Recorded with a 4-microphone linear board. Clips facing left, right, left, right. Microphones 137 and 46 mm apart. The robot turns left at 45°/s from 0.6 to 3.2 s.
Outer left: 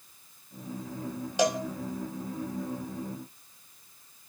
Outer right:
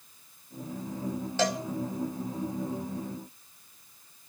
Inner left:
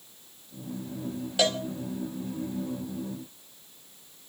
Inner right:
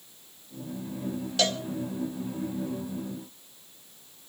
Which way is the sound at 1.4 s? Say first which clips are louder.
Outer left 3 dB, inner left 2 dB; 15° left (ahead or behind).